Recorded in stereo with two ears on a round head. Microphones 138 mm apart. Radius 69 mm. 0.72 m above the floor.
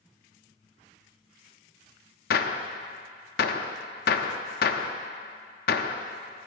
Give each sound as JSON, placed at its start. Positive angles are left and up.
{"t": 2.3, "sound": "a gunshot", "side_deg": 65, "distance_m": 0.7}